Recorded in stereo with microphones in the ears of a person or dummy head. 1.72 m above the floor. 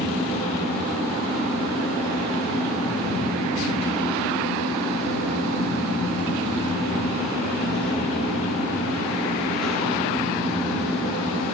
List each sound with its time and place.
0.0 s a fan: 5° right (ahead or behind), 1.7 m